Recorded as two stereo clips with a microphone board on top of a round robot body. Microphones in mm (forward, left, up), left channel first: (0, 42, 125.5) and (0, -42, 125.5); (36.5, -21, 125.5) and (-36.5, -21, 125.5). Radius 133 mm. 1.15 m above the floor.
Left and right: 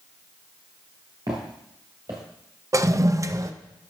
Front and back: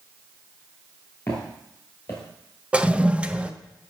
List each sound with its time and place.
1.3 s footsteps: 55° right, 1.3 m
2.7 s a toilet flushing: 115° right, 0.6 m